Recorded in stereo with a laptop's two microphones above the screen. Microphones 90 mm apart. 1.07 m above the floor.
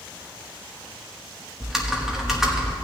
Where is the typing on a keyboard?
5° right (ahead or behind), 1.1 m.